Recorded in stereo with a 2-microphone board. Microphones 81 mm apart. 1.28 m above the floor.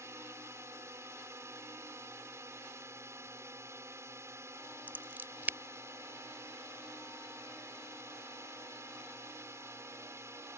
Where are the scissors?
20° right (ahead or behind).